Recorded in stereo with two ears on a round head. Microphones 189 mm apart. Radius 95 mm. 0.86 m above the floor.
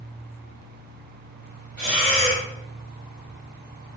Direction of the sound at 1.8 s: 20° right (ahead or behind).